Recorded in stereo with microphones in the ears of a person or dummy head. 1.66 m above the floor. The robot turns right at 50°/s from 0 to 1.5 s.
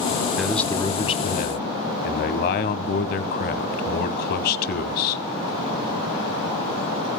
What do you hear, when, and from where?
0.4 s a man speaking: straight ahead, 1.3 m; by 5.2 s 55° left, 1.3 m